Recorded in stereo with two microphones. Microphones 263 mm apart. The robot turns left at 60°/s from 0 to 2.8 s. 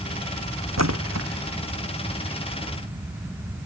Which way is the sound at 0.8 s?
80° right.